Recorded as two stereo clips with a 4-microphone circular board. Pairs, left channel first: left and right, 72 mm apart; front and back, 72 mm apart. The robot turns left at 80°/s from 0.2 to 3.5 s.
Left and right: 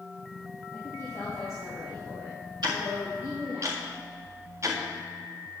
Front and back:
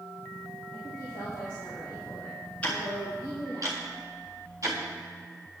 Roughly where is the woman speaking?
Ahead left.